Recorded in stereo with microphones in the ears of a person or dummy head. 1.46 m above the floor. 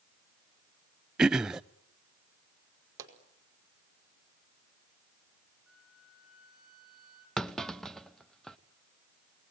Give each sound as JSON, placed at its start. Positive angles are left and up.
{"t": 1.2, "sound": "throat clearing", "side_deg": 0, "distance_m": 0.7}
{"t": 3.0, "sound": "a pop", "side_deg": -10, "distance_m": 5.0}
{"t": 5.7, "sound": "a flute", "side_deg": 5, "distance_m": 3.5}
{"t": 7.4, "sound": "a clunk", "side_deg": -10, "distance_m": 0.7}